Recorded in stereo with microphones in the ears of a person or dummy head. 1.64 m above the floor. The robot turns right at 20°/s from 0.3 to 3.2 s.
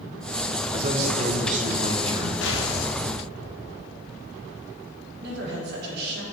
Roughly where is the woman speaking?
Right.